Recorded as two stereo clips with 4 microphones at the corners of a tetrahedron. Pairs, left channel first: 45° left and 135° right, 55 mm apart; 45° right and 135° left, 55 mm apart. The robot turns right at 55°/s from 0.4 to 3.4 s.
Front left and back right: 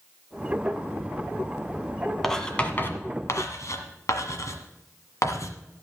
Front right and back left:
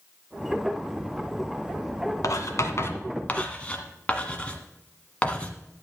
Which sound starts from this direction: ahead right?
Writing, at 2.2 s.